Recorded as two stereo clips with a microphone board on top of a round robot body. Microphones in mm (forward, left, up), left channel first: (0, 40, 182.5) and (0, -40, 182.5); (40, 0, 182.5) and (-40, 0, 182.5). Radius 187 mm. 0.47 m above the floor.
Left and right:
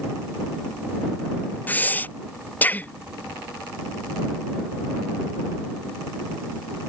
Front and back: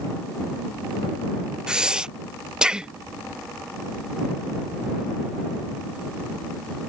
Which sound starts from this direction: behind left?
Breathing, at 1.7 s.